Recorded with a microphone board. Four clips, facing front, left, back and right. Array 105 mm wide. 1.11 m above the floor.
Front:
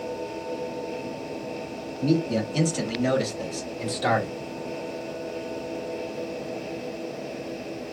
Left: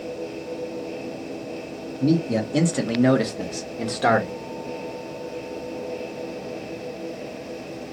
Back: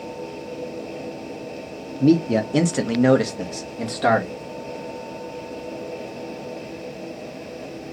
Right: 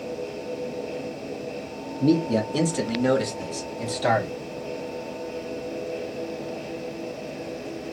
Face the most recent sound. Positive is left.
turn(degrees=125)